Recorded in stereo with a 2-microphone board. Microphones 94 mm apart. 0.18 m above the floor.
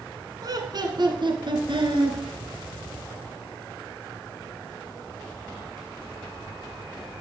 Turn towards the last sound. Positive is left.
turn(degrees=-60)  # may be behind; listen again after turning